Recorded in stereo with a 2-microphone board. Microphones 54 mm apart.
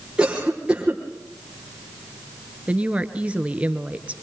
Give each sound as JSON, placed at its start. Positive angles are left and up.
{"t": 0.2, "sound": "a cough", "side_deg": -15, "distance_m": 4.5}
{"t": 2.7, "sound": "a woman speaking", "side_deg": -20, "distance_m": 1.7}